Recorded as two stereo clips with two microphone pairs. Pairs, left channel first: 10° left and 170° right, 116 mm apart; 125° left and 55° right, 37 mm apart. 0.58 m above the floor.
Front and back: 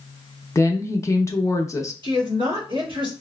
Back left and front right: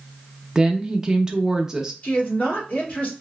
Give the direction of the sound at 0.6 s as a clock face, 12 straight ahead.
12 o'clock.